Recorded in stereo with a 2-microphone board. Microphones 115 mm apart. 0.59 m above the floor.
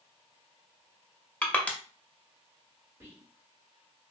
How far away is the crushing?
About 0.6 m.